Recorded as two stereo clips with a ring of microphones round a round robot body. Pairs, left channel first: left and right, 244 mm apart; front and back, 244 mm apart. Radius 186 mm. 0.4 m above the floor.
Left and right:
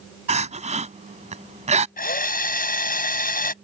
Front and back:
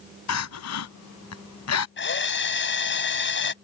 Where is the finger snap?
I don't hear a finger snap.